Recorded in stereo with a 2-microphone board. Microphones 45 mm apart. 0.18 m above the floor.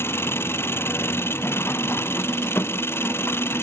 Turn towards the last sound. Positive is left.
turn(degrees=65)  # may be behind; listen again after turning